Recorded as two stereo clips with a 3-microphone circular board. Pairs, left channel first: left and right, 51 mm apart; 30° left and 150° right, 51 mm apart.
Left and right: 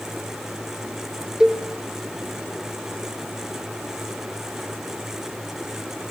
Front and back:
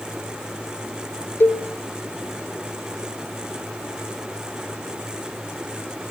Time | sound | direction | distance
1.4 | a cowbell | 10° right | 1.3 m